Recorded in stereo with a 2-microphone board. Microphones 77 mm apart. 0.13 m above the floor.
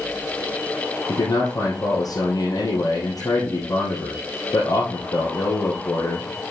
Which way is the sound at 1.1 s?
55° left (ahead or behind).